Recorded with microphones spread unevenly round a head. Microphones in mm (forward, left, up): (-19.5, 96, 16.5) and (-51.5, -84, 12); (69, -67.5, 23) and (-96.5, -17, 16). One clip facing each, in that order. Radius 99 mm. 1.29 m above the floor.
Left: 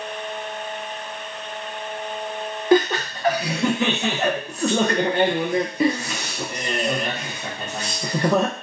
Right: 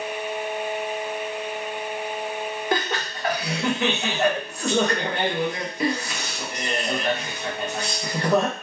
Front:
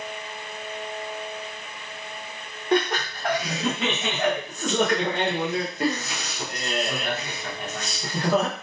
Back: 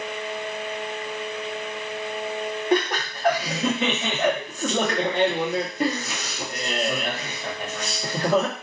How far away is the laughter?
About 0.6 m.